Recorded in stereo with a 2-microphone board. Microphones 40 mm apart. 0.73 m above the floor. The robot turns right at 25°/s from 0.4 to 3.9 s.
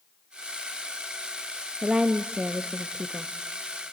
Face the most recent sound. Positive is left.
turn(degrees=0)